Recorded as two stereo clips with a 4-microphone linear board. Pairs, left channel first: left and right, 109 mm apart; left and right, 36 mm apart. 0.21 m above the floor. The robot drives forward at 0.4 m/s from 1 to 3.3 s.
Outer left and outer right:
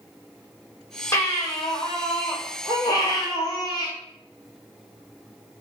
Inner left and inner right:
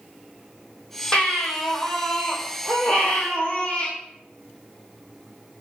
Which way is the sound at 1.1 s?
25° left (ahead or behind).